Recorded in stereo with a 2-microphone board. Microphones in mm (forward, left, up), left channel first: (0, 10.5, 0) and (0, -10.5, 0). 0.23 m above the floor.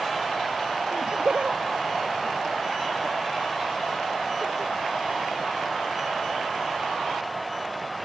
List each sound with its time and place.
0.9 s laughter: 75° right (ahead or behind); by 4.7 s 80° right